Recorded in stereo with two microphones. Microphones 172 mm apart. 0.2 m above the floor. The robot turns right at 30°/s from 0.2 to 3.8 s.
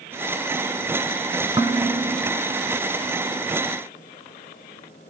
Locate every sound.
1.6 s dishes clattering: 25° right (ahead or behind), 1.3 m; by 2.3 s 40° right (ahead or behind), 1.3 m